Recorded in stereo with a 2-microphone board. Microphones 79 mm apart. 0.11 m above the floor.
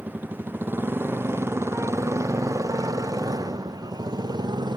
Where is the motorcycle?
20° right (ahead or behind); by 4.8 s 65° right (ahead or behind).